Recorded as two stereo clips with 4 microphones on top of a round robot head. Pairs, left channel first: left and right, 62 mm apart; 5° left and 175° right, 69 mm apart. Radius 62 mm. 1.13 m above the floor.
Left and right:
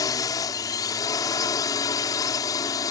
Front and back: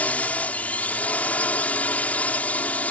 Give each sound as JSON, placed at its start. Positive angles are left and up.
{"t": 0.0, "sound": "a drone", "azimuth_deg": 75}